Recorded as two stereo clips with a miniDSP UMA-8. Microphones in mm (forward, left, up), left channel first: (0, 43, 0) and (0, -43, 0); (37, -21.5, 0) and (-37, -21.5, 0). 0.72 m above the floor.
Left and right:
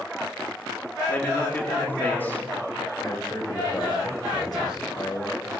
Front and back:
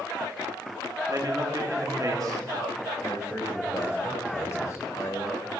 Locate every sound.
1.1 s a man speaking: 155° left, 1.8 m
3.0 s a man speaking: 50° left, 2.5 m